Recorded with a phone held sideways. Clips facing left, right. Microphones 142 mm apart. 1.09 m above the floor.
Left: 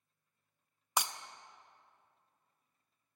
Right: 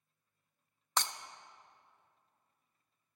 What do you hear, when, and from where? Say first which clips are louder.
1.0 s breaking glass: left 1 dB; 10° left (ahead or behind), 0.5 m